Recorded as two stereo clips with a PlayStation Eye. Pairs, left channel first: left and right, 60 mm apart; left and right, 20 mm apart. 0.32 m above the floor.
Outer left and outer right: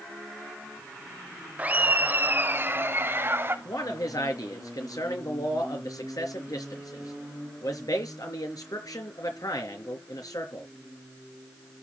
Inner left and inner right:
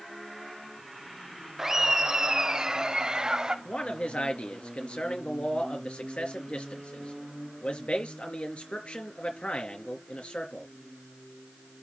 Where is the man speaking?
80° left, 4.5 m.